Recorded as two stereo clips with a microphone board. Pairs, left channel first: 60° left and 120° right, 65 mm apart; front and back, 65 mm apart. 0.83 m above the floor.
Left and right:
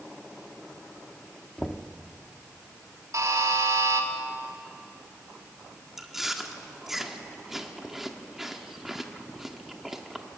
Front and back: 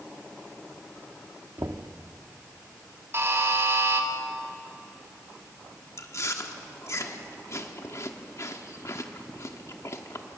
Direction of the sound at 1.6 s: 145° left.